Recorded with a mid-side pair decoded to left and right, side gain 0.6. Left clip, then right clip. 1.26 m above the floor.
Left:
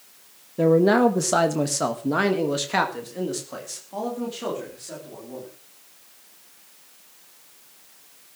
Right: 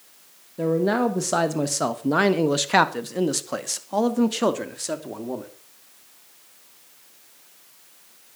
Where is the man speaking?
25° left, 1.6 m; by 5.5 s 65° right, 3 m.